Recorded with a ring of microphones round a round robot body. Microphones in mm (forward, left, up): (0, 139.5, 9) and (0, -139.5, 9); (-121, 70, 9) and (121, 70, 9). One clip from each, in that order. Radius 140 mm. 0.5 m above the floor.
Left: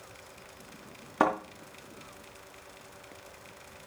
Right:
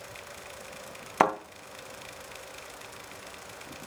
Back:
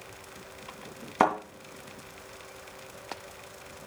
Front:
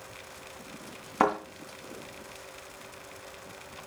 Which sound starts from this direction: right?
A thud, at 1.2 s.